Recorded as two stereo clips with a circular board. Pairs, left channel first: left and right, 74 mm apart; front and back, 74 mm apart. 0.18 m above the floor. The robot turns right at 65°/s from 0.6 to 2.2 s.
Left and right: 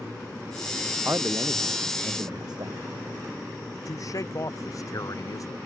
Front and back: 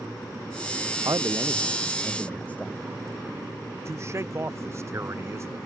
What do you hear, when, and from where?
1.1 s a man speaking: 145° right; by 2.8 s 70° right
3.9 s a man speaking: 130° left